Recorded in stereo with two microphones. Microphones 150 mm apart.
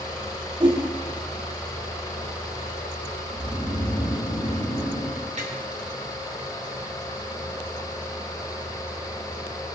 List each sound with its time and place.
0.6 s a whoosh: 30° right (ahead or behind), 3.5 m
3.3 s snoring: 75° left (ahead or behind), 3.5 m
5.4 s tapping: 50° right (ahead or behind), 4 m